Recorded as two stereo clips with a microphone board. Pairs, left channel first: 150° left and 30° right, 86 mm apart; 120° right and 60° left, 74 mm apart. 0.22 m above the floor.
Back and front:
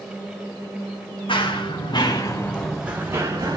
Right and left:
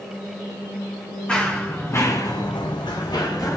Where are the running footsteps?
165° left, 1.9 m; by 3.6 s 75° right, 1.6 m.